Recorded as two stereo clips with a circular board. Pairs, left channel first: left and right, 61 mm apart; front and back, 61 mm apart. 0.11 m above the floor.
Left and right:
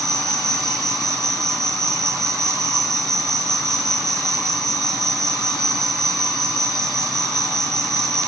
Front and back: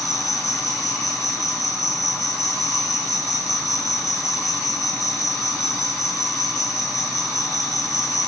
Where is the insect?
10° left, 3 m.